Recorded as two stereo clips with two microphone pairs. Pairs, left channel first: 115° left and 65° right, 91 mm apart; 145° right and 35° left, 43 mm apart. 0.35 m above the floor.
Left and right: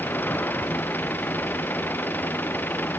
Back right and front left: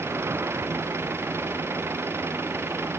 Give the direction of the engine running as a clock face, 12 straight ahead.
11 o'clock.